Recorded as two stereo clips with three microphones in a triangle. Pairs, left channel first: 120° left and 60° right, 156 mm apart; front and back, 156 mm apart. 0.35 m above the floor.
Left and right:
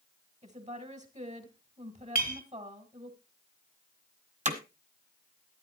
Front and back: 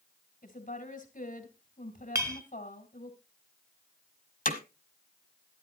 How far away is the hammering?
About 1.4 m.